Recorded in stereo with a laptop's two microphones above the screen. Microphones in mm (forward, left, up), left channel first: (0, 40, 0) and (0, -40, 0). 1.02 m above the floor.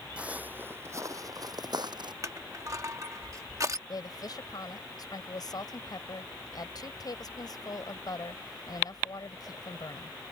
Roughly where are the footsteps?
Centre.